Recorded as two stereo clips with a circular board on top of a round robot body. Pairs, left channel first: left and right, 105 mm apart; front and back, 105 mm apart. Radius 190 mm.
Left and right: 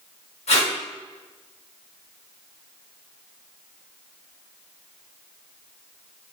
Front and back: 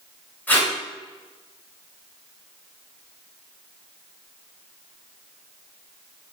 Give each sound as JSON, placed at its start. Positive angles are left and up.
{"t": 0.5, "sound": "tape being pulled", "azimuth_deg": 75, "distance_m": 1.2}